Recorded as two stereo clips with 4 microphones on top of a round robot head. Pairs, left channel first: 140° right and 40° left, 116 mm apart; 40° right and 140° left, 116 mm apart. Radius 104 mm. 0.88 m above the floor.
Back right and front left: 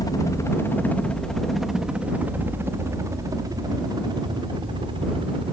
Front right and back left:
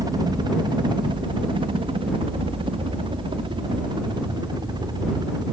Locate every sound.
0.0 s a helicopter: straight behind; by 5.5 s 85° left